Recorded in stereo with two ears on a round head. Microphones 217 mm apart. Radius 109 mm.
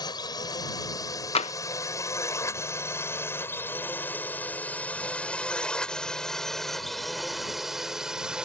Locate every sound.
0.0 s a drone: 15° left (ahead or behind); by 8.5 s 5° right (ahead or behind)
1.4 s tapping: 25° left (ahead or behind)